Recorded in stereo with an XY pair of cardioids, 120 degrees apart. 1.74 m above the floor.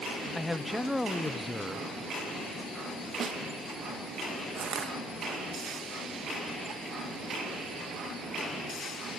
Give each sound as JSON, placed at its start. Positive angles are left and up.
{"t": 0.3, "sound": "a man speaking", "azimuth_deg": 10, "distance_m": 1.4}
{"t": 3.2, "sound": "a snare drum", "azimuth_deg": -40, "distance_m": 1.8}
{"t": 4.5, "sound": "crushing", "azimuth_deg": -45, "distance_m": 3.0}